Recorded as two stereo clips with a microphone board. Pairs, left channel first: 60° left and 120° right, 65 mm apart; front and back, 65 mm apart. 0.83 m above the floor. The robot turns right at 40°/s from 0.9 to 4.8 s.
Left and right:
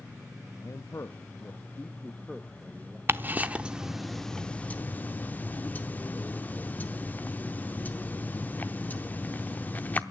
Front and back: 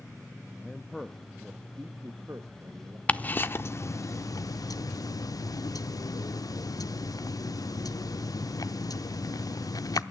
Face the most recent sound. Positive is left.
turn(degrees=0)